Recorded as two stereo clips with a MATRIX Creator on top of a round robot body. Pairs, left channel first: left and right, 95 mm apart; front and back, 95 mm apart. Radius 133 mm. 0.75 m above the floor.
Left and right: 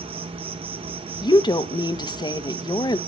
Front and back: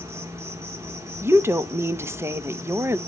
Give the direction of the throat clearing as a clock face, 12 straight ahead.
No throat clearing in this recording.